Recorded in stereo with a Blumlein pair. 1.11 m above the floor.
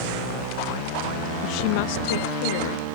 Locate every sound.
1.4 s a woman speaking: 40° left; by 3.0 s 55° left